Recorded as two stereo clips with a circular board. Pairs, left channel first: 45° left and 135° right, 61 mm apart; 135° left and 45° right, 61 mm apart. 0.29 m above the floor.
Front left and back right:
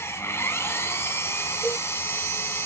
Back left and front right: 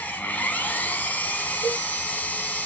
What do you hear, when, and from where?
0.0 s an engine running: 75° left, 2 m
1.6 s a cowbell: 155° left, 7 m